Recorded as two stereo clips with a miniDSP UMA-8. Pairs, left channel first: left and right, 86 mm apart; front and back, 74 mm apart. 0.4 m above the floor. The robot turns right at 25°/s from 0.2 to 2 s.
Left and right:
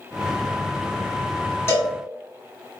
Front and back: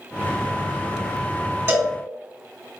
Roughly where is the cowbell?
Behind left.